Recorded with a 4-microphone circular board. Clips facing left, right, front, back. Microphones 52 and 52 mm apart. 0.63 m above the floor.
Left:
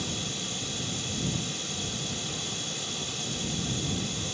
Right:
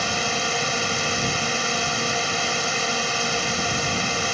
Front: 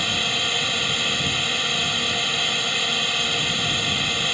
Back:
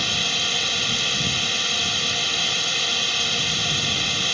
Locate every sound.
0.0 s a drone: 80° right